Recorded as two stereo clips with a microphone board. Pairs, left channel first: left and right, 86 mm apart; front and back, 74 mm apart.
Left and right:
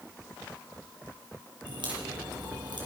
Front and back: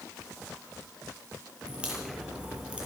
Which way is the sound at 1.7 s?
105° right.